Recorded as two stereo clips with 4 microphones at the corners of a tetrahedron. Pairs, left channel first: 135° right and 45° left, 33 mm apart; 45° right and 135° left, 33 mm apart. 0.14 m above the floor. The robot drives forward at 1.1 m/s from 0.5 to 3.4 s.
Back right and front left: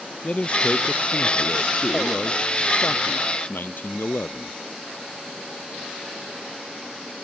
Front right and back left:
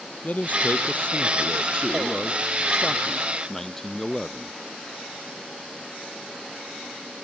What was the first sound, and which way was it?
A man speaking, 85° right.